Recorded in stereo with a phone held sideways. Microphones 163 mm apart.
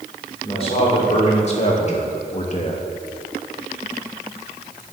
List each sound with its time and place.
0.4 s a man speaking: 35° left (ahead or behind), 3 m; by 2.9 s 40° left (ahead or behind), 1.0 m